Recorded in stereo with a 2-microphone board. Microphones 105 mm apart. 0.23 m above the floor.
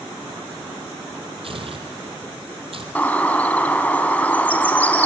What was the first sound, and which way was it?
Tearing paper, 60° right (ahead or behind).